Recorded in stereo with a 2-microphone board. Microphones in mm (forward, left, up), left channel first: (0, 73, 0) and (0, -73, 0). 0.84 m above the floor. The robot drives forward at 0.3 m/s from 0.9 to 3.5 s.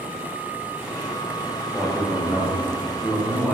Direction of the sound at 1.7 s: Centre (ahead or behind).